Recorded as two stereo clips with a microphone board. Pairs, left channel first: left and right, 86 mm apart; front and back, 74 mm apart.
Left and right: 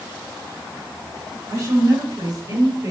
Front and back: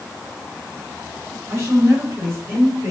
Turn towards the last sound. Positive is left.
turn(degrees=-130)